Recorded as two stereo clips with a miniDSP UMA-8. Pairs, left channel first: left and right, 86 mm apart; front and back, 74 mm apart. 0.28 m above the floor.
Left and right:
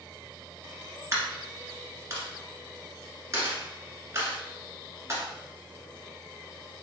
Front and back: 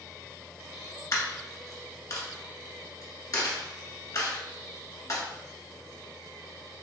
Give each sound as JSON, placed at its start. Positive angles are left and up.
{"t": 1.1, "sound": "a dropped coin", "azimuth_deg": -35, "distance_m": 1.3}